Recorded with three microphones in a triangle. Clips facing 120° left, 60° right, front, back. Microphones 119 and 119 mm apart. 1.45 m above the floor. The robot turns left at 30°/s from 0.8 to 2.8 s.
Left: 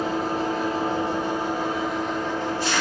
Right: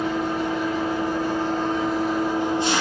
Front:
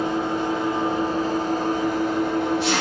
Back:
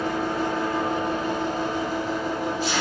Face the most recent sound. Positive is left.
turn(degrees=5)